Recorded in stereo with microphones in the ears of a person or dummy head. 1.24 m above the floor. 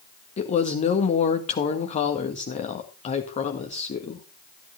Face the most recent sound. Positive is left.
turn(degrees=35)  # may be behind; listen again after turning